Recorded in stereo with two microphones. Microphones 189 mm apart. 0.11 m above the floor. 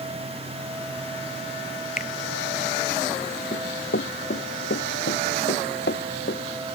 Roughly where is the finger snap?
Left.